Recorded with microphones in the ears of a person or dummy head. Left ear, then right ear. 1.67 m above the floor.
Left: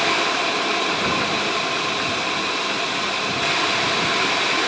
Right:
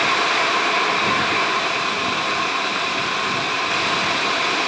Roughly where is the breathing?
No breathing in this recording.